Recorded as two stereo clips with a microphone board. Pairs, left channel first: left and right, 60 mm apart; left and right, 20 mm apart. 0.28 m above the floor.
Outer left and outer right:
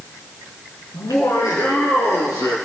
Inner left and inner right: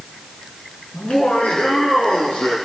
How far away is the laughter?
About 4 m.